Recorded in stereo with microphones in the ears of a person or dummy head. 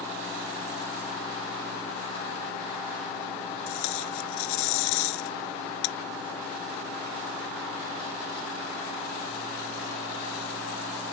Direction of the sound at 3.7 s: 80° left.